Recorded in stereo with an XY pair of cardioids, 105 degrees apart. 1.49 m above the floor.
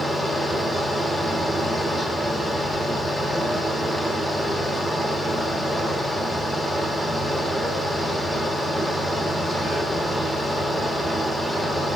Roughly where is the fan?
Ahead.